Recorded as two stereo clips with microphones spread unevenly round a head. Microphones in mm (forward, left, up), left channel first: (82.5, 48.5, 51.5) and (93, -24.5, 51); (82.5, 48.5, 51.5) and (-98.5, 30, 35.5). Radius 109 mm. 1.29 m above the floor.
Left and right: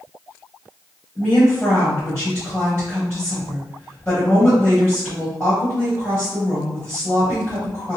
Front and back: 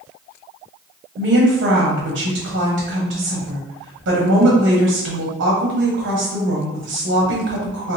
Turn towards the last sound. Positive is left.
turn(degrees=180)